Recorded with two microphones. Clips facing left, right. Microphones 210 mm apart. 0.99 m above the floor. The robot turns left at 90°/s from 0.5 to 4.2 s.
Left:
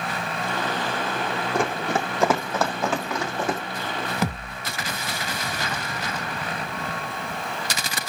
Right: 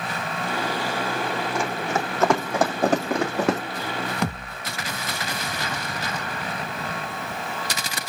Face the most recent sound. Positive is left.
turn(degrees=5)  # may be behind; listen again after turning